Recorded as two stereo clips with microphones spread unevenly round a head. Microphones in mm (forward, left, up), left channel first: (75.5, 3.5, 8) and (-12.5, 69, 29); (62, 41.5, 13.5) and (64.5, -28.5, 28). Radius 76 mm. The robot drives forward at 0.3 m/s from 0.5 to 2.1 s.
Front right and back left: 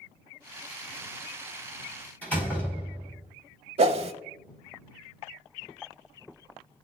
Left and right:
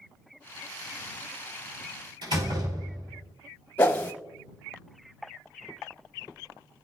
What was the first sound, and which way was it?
A door slam, 115° right.